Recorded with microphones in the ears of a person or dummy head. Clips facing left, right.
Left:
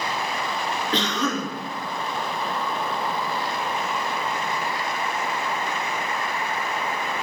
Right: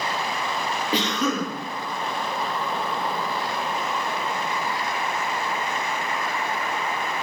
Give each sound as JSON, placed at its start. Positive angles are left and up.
{"t": 0.9, "sound": "a cough", "side_deg": -10, "distance_m": 1.8}